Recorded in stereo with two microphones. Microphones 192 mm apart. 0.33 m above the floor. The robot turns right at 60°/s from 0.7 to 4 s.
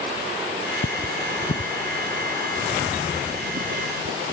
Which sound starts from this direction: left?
Cutlery clinking, at 0.8 s.